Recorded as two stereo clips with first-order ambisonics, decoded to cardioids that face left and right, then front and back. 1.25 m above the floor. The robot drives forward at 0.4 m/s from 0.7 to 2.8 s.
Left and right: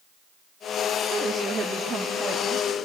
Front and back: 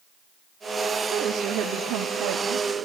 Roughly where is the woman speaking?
Behind right.